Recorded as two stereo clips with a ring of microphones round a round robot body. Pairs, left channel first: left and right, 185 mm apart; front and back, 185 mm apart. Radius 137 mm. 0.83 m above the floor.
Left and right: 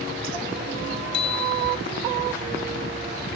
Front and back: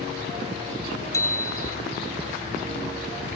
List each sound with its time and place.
1.1 s a bicycle bell: 75° left, 3 m